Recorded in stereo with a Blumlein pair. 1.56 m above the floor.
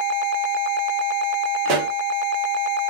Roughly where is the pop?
Ahead right.